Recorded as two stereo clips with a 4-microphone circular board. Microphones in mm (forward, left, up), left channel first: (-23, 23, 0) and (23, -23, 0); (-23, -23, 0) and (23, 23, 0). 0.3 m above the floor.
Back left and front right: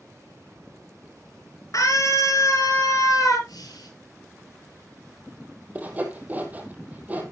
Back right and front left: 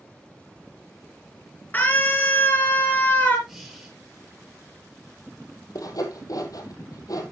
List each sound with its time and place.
1.7 s a scream: 165° left, 6 m
3.5 s breathing: 130° left, 6.5 m
5.8 s sawing: 110° right, 2.5 m